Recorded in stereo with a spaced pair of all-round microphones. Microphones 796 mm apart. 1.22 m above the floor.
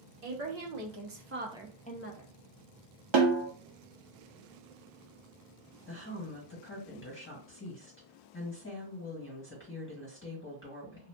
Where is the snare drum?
40° right (ahead or behind), 0.6 m.